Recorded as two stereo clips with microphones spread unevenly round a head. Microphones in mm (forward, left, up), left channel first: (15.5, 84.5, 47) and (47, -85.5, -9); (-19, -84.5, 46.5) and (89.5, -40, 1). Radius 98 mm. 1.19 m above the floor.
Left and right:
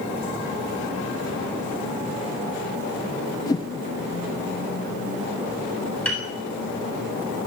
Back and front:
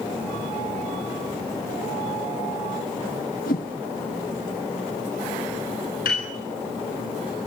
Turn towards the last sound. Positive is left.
turn(degrees=-175)